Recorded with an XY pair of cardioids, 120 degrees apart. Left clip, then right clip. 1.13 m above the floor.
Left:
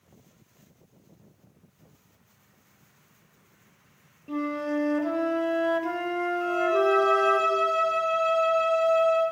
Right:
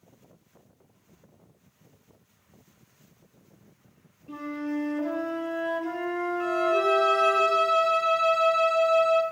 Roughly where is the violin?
Ahead right.